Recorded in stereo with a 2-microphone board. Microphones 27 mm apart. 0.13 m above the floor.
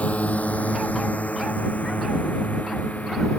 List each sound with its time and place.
0.0 s a drone: 65° left (ahead or behind); by 3.4 s 70° left (ahead or behind)